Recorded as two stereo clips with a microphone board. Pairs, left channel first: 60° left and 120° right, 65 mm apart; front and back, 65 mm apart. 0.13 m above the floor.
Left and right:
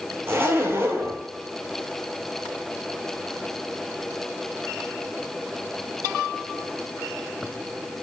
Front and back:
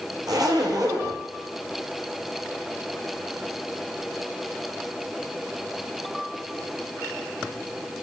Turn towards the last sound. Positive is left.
turn(degrees=-175)